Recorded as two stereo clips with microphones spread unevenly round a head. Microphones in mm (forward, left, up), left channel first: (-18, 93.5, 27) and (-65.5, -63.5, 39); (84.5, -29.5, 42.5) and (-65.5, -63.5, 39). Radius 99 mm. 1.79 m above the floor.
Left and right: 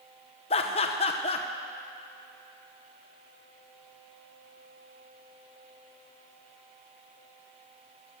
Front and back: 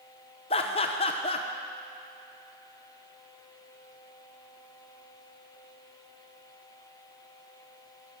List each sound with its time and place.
0.5 s laughter: 35° left, 0.8 m